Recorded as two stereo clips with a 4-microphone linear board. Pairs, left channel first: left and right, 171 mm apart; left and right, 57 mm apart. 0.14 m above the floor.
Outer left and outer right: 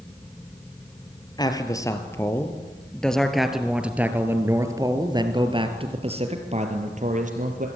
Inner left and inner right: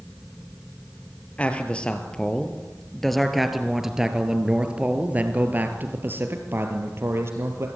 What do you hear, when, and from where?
1.4 s a man speaking: 25° left (ahead or behind), 3 m; by 7.7 s 50° right (ahead or behind), 3.5 m